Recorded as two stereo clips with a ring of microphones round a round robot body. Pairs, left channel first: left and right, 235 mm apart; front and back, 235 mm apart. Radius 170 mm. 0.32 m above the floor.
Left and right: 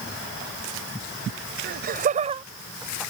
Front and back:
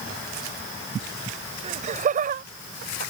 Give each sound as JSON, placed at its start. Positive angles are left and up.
{"t": 1.6, "sound": "laughter", "azimuth_deg": -120}